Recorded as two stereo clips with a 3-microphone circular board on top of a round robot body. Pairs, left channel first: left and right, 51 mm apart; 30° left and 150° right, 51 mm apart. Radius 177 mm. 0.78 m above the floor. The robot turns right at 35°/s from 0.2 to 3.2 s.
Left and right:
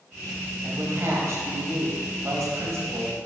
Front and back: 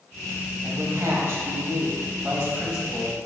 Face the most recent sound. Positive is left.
turn(degrees=-60)